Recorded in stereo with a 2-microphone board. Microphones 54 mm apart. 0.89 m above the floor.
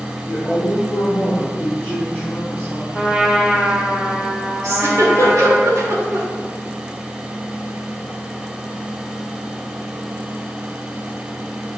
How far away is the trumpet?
About 1.3 m.